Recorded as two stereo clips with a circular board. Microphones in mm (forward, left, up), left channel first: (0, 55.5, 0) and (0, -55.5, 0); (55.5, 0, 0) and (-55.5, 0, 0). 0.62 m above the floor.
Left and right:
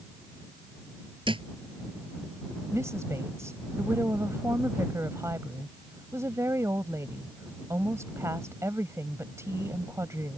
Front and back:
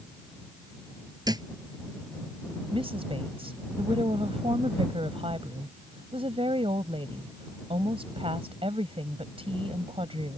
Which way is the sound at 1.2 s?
130° right.